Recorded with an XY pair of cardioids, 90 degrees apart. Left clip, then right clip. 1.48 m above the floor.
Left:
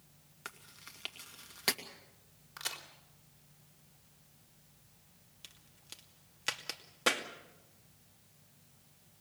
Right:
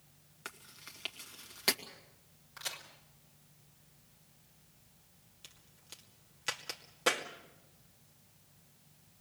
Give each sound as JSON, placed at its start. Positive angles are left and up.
{"t": 0.5, "sound": "chewing", "azimuth_deg": 0, "distance_m": 2.5}
{"t": 2.6, "sound": "a crack", "azimuth_deg": 35, "distance_m": 4.0}
{"t": 5.4, "sound": "a crack", "azimuth_deg": 20, "distance_m": 2.5}